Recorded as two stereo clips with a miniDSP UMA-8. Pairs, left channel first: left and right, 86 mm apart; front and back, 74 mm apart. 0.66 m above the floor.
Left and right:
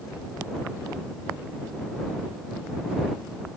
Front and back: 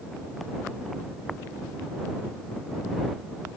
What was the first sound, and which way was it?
Only background noise.